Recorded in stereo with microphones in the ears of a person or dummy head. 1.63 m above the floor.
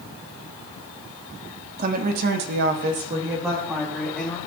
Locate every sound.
1.8 s a woman speaking: 45° right (ahead or behind), 1.2 m; by 4.4 s 10° left (ahead or behind), 1.7 m